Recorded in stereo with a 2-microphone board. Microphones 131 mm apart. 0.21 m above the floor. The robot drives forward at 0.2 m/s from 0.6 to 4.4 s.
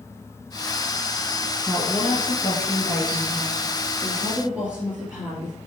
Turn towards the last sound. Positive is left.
turn(degrees=-10)  # may be behind; listen again after turning